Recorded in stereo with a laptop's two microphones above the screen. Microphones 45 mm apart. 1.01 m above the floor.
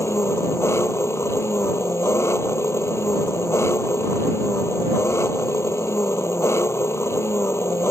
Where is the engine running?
80° left.